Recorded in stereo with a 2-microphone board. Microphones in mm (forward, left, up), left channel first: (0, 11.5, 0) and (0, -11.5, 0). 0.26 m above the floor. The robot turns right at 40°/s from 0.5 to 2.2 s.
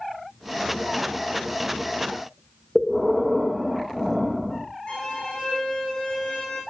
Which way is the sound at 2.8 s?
5° left (ahead or behind).